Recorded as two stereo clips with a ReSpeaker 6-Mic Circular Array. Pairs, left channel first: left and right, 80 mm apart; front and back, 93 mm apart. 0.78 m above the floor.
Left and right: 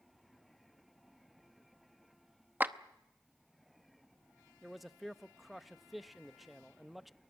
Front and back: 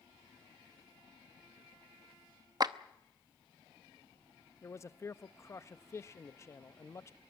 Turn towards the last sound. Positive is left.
turn(degrees=0)